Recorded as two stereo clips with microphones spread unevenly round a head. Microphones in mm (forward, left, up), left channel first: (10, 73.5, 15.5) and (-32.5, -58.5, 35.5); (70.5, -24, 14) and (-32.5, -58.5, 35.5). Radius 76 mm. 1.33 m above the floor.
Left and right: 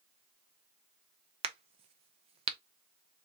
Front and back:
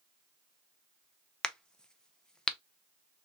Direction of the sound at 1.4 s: 60° right.